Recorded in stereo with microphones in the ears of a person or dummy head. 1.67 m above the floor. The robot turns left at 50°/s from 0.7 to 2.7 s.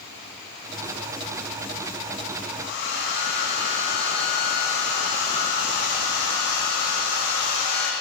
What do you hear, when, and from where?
2.6 s a hair dryer: 50° left (ahead or behind), 2.5 m; by 7.9 s 55° left (ahead or behind), 2.5 m